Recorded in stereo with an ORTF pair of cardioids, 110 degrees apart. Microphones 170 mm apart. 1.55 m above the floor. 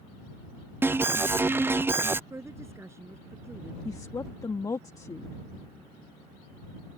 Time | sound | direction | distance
0.8 | an alarm | 15° right | ?
2.3 | a woman speaking | 15° right | ?
3.9 | a woman speaking | 20° left | ?